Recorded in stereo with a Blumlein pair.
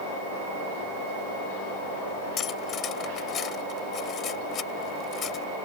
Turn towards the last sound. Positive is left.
turn(degrees=25)